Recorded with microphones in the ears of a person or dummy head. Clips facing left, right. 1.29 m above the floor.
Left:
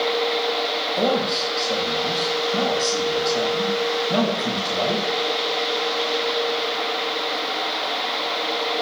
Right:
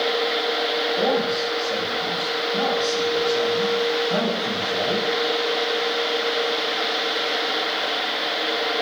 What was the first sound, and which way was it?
A man speaking, 55° left (ahead or behind).